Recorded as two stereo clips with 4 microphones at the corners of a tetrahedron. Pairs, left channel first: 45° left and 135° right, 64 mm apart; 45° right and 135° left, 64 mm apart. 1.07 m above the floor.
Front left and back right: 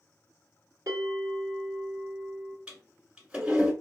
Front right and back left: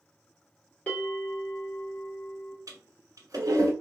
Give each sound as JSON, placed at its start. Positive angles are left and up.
{"t": 0.9, "sound": "a bell", "azimuth_deg": -110, "distance_m": 1.4}
{"t": 2.7, "sound": "a toilet flushing", "azimuth_deg": 155, "distance_m": 1.2}